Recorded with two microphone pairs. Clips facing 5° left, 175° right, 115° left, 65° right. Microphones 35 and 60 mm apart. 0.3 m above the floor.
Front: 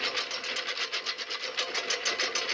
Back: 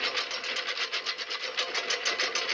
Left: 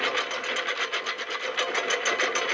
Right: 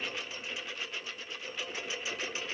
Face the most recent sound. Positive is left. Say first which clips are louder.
# back 1 dB, left 12 dB
turn(degrees=105)